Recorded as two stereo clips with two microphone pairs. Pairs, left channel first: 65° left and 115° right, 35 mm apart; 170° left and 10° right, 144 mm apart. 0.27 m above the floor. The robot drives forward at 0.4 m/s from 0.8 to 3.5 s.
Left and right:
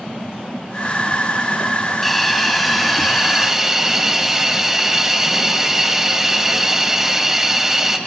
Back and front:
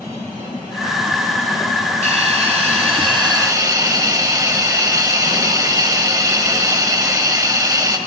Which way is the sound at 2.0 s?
20° right.